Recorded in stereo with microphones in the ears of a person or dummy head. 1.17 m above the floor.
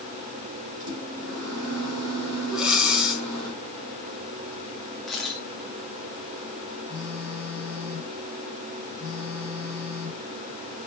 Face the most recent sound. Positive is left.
turn(degrees=-5)  # may be behind; listen again after turning